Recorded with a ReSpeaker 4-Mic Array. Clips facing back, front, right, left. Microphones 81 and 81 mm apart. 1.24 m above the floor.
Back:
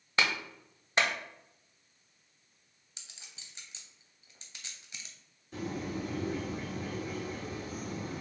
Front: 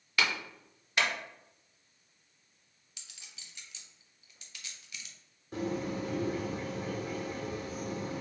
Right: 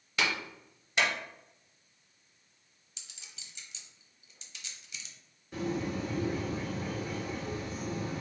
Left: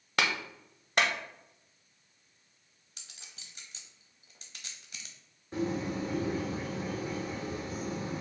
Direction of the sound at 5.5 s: 35° left.